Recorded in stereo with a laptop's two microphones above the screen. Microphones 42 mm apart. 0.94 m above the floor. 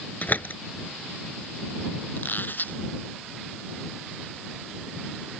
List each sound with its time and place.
0.2 s a door slam: 40° left (ahead or behind)
2.1 s a squeak: 50° left (ahead or behind)